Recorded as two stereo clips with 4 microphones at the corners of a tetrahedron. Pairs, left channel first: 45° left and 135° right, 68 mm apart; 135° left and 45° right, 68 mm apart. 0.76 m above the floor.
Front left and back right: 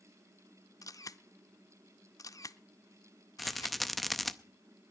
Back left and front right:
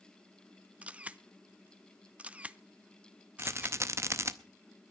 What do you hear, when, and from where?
0.8 s a camera shutter: 25° left, 0.5 m
3.4 s a rattle: 40° right, 0.6 m